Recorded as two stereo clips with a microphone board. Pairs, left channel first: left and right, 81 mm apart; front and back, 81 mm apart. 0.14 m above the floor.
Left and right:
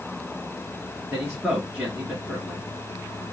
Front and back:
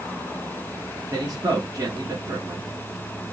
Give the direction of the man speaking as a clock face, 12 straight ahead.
6 o'clock.